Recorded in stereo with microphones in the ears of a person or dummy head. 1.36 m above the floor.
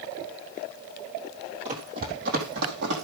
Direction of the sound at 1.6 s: 45° right (ahead or behind).